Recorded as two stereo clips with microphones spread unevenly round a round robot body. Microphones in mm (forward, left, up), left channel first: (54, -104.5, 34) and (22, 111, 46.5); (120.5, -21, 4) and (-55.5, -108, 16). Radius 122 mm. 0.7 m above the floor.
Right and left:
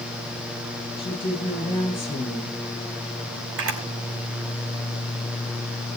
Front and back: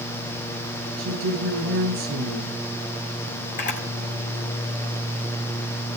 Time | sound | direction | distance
1.0 | a woman speaking | 155° right | 9 m
3.6 | a camera shutter | 85° left | 4 m